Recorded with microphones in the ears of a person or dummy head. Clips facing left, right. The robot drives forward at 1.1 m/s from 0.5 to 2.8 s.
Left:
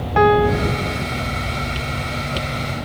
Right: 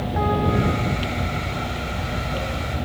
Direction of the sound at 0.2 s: 70° left (ahead or behind).